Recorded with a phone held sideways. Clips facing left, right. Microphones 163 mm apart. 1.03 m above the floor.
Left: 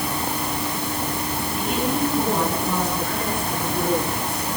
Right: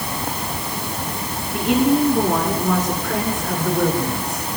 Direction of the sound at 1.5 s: 85° right.